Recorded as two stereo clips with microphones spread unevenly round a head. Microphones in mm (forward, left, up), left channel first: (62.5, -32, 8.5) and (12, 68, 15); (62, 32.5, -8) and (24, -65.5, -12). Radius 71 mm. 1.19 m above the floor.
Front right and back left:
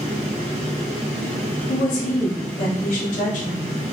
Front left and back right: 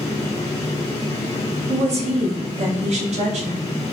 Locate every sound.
0.0 s a fan: 100° left, 1.1 m
1.7 s a woman speaking: 95° right, 0.7 m